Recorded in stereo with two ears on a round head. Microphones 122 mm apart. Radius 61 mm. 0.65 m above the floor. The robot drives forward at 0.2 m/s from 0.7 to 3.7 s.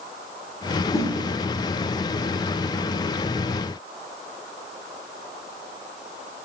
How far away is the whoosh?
About 0.5 m.